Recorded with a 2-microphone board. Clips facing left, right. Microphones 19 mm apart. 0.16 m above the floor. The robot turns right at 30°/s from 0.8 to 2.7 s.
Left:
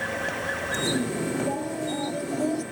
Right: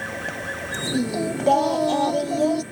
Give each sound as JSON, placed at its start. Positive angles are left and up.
{"t": 0.9, "sound": "singing", "azimuth_deg": -95}